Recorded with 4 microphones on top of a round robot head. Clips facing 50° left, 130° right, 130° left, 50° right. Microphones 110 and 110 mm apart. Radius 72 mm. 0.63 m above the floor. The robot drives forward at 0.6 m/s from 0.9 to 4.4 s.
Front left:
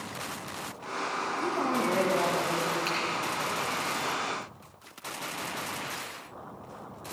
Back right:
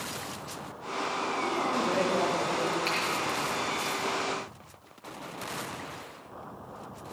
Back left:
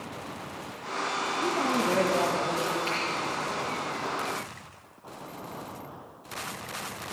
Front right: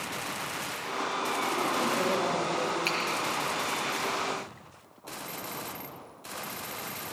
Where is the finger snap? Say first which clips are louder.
Back right 1 dB, back left 1 dB; 35° right, 6.5 m.